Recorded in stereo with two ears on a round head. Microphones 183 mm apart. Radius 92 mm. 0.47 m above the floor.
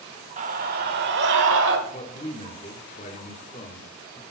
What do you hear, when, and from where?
0.4 s a scream: 35° right (ahead or behind), 1.1 m; by 1.8 s 65° right (ahead or behind), 1.7 m
1.9 s a man speaking: 30° left (ahead or behind), 1.0 m